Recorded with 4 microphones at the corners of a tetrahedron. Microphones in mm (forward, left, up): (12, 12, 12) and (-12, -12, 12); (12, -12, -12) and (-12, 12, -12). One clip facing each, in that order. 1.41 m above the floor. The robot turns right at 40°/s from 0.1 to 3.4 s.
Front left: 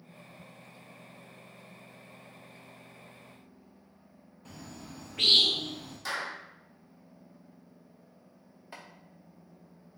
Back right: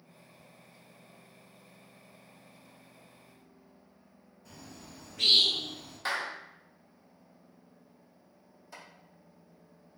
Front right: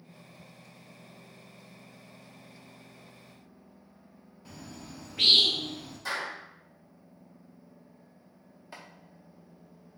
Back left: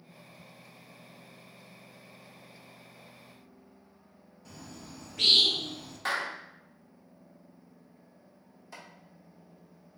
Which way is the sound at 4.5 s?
20° left.